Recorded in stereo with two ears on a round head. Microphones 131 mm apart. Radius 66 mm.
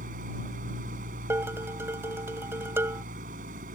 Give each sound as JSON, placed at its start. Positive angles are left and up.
{"t": 0.0, "sound": "an engine running", "side_deg": -60}
{"t": 1.3, "sound": "dishes clattering", "side_deg": -15}